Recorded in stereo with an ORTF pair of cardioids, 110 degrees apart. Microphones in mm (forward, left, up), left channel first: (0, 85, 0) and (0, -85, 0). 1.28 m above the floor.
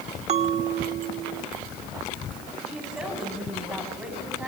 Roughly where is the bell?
Ahead right.